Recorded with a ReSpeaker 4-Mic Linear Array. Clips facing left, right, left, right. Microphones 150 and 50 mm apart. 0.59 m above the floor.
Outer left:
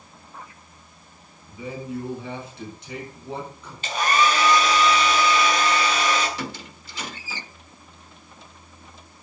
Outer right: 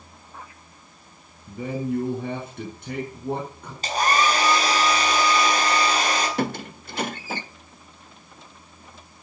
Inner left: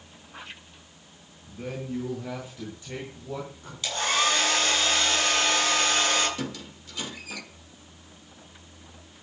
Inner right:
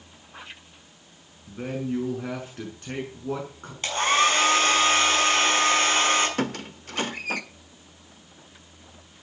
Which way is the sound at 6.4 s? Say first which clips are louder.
Outer right 7 dB, inner right 6 dB; 55° right (ahead or behind).